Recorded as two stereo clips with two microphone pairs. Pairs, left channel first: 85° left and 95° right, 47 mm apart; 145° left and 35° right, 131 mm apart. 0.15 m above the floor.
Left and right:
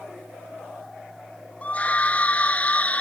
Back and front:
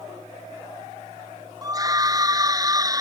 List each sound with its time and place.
1.6 s a scream: 25° left; by 3.0 s 30° left